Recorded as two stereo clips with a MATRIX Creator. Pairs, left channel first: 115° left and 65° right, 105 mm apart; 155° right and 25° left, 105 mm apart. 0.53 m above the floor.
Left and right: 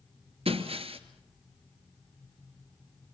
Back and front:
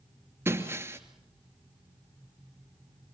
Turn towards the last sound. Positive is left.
turn(degrees=-45)